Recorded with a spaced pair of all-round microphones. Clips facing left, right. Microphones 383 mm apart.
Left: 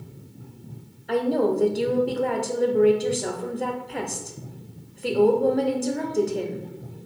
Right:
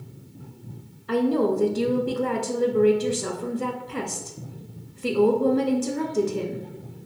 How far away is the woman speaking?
About 0.5 m.